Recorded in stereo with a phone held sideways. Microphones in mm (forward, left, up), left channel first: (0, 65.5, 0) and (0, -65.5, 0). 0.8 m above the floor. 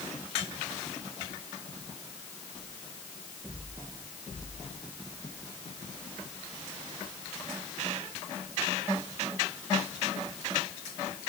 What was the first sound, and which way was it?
Only background noise.